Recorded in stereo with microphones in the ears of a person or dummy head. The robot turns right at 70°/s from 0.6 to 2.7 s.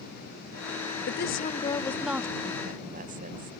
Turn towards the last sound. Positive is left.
turn(degrees=-140)